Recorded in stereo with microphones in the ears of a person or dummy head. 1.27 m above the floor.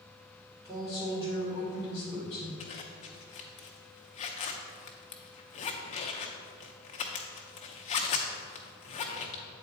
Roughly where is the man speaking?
Right.